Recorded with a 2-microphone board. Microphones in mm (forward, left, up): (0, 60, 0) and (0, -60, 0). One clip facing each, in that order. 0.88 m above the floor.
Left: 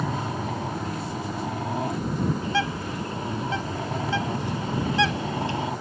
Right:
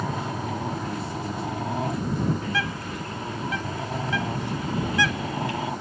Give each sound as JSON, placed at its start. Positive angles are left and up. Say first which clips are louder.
{"t": 2.4, "sound": "a bird", "louder": "left 3 dB", "side_deg": 30}